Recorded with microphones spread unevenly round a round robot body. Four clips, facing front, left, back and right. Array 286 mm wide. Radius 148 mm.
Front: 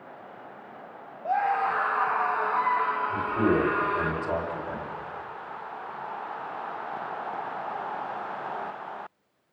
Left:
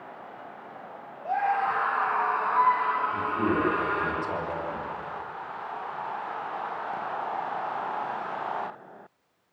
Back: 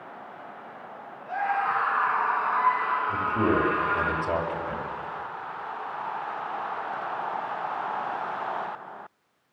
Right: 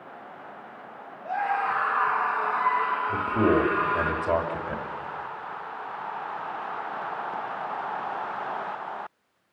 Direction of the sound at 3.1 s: 115° right.